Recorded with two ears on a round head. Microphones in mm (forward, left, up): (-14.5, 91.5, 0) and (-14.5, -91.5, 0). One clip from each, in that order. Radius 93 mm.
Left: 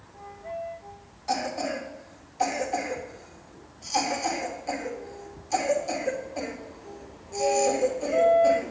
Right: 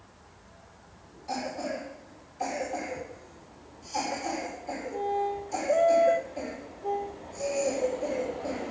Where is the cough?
45° left (ahead or behind), 3 m.